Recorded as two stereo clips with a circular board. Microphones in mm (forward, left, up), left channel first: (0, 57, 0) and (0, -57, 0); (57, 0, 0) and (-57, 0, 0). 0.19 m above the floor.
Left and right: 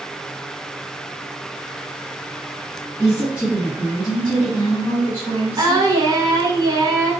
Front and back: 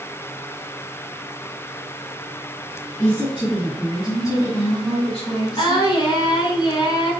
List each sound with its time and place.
3.0 s a woman speaking: 20° right, 2.0 m; by 5.9 s 100° left, 1.8 m
5.6 s singing: 40° right, 0.9 m